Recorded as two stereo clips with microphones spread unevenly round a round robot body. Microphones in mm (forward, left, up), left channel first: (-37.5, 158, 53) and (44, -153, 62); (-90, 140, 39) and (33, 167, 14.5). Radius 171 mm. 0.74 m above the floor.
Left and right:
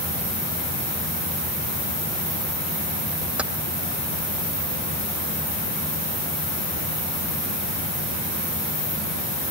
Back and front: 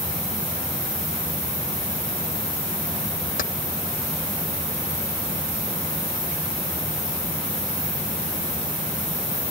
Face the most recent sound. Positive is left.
turn(degrees=-165)